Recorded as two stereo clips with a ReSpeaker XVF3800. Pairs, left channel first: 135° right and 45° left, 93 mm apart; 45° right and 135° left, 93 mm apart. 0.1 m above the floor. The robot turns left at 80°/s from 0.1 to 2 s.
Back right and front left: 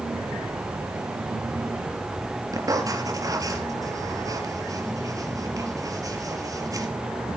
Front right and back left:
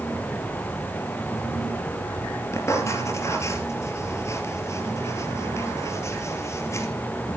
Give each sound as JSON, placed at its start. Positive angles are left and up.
{"t": 2.5, "sound": "writing", "azimuth_deg": 5, "distance_m": 2.5}